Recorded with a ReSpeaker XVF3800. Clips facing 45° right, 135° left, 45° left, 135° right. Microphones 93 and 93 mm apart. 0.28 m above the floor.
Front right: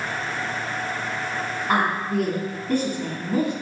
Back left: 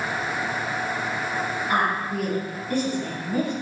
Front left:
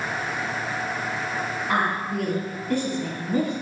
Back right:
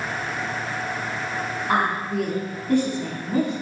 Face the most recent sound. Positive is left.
turn(degrees=-85)